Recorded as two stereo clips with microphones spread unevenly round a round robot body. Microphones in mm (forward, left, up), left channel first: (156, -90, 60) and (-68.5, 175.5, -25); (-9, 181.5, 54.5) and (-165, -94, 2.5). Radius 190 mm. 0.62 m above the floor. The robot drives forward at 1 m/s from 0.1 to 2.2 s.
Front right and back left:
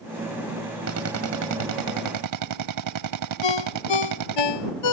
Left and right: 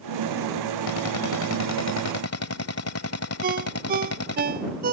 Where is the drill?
85° left; by 4.4 s 105° left.